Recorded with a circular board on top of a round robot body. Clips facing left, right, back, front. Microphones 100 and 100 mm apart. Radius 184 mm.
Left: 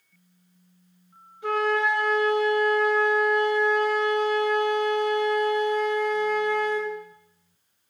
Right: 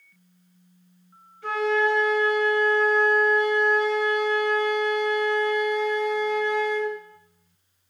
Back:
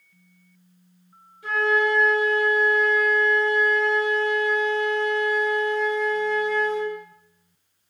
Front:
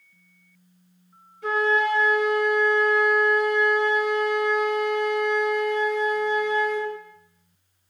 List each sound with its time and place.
1.4 s a flute: 20° left, 3 m